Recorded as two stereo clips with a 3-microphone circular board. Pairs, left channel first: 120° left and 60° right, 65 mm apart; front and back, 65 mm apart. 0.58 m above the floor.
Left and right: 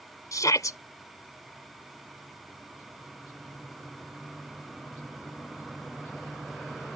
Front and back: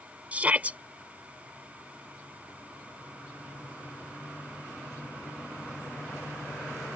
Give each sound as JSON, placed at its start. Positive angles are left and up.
{"t": 0.3, "sound": "a shout", "azimuth_deg": 115}